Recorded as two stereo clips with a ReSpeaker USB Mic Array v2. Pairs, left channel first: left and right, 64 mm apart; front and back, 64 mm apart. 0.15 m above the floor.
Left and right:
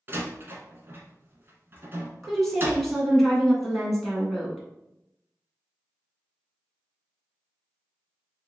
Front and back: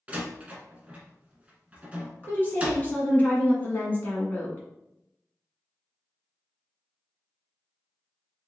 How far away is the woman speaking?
About 1.5 m.